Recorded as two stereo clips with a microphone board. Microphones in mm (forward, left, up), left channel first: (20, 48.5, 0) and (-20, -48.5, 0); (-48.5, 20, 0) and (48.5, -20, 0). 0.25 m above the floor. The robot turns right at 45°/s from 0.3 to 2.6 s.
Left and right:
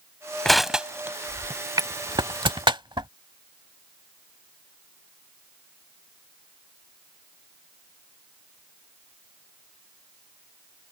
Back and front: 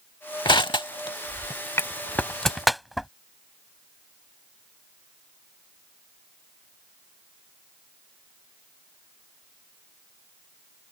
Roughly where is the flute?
I don't hear a flute.